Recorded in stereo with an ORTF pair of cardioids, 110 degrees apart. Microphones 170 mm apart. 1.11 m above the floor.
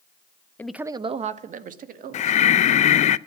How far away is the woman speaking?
About 0.6 m.